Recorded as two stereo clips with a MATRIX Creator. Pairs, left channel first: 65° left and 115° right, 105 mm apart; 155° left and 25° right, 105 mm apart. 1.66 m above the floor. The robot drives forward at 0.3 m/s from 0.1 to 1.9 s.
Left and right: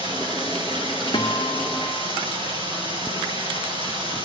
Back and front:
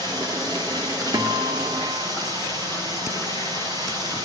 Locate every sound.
0.0 s running water: 70° right, 9 m; by 4.3 s 75° right, 8.5 m
1.1 s a guitar: 20° left, 1.3 m; by 2.1 s 25° left, 1.1 m